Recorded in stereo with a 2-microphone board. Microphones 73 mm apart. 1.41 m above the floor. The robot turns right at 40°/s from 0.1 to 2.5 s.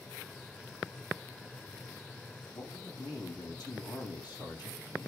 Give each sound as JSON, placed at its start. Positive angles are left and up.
{"t": 2.5, "sound": "a man speaking", "side_deg": 65, "distance_m": 7.0}